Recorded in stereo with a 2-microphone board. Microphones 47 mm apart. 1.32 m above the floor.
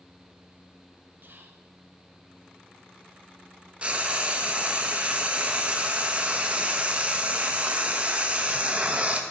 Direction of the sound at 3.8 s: 30° right (ahead or behind).